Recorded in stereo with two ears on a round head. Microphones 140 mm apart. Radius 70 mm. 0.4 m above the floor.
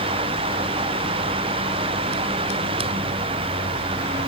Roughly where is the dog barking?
I don't hear a dog barking.